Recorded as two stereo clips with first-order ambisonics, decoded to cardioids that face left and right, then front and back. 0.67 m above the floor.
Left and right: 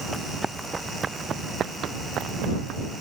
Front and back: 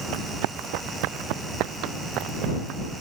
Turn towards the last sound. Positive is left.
turn(degrees=-135)